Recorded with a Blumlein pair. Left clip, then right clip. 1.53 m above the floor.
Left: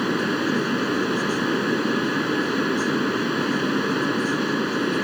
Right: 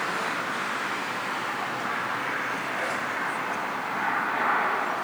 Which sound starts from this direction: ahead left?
A fan, at 0.0 s.